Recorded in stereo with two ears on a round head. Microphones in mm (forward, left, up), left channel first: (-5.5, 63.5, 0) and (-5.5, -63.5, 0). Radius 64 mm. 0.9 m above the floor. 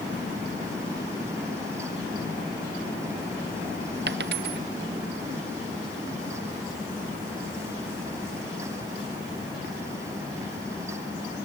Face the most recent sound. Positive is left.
turn(degrees=-80)